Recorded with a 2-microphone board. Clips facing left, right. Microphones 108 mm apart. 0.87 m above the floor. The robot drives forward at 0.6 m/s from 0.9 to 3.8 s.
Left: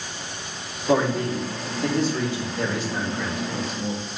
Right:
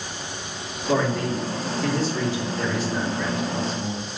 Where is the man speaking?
30° left (ahead or behind), 2 m; by 4.0 s 15° left (ahead or behind), 3.5 m.